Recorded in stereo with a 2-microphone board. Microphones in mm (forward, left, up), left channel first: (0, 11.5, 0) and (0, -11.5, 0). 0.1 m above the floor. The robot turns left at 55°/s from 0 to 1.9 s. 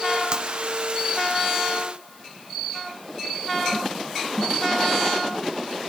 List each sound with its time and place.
0.3 s breaking glass: 30° right (ahead or behind); by 0.5 s 20° right (ahead or behind)